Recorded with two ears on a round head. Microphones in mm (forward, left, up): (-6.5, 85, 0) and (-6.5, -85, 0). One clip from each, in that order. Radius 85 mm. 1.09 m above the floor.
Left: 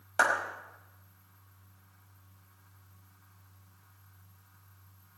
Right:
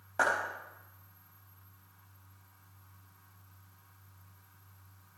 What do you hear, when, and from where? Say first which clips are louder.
0.2 s a clap: left 3 dB; 75° left (ahead or behind), 5.5 m